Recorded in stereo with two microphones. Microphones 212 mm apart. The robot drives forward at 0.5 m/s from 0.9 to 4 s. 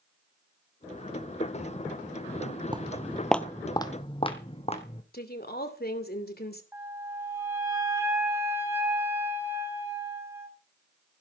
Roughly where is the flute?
Centre.